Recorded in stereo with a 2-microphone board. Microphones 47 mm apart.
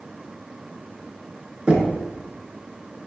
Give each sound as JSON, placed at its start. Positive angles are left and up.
{"t": 1.7, "sound": "knocking", "side_deg": -25, "distance_m": 1.2}